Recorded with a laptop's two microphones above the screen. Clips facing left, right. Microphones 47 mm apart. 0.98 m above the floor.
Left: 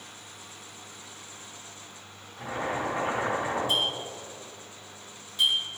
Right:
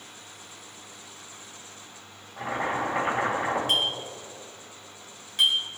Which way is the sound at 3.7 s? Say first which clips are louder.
Right 1 dB; 75° right (ahead or behind).